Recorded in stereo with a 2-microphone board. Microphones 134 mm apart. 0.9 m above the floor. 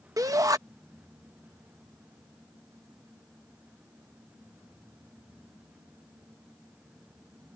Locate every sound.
0.2 s a shout: 25° right (ahead or behind)